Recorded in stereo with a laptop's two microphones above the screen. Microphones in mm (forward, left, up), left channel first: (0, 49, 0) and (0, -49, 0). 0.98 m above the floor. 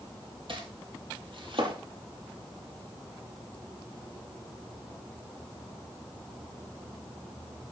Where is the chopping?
65° right (ahead or behind), 6 m.